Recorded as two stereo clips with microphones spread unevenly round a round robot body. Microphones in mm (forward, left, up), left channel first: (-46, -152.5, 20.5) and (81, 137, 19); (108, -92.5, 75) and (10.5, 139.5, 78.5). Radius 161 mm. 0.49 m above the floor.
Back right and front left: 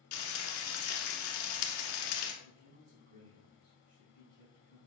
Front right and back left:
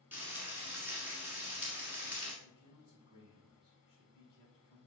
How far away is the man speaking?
About 3.5 m.